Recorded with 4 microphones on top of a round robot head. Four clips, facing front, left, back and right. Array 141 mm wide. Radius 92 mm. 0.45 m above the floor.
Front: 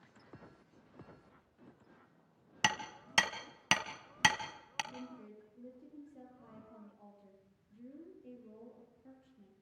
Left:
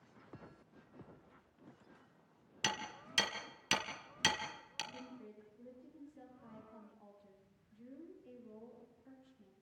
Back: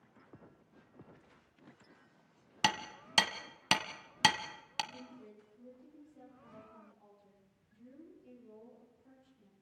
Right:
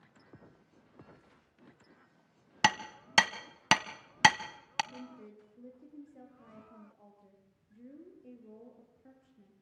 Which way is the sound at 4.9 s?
65° right.